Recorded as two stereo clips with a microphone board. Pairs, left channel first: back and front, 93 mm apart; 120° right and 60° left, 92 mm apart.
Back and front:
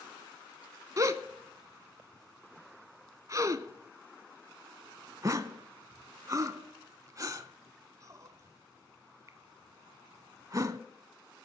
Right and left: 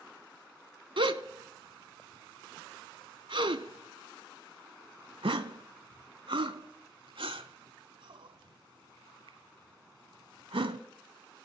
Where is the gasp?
50° left, 0.5 m.